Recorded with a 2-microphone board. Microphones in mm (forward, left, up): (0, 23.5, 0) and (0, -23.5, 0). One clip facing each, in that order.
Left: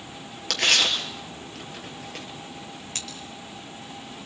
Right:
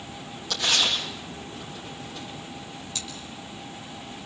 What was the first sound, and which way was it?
Tearing paper, 70° left (ahead or behind).